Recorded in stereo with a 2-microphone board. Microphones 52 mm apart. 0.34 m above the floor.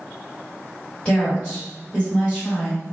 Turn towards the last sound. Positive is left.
turn(degrees=15)  # may be behind; listen again after turning